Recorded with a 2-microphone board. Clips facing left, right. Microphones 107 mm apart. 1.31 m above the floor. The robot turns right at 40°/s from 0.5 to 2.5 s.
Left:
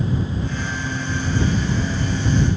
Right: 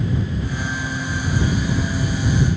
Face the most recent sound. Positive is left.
No sound to turn to.